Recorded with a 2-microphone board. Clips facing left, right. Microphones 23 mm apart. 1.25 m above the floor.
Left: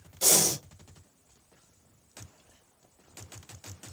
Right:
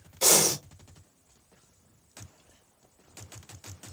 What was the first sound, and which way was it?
Breathing, 40° right (ahead or behind).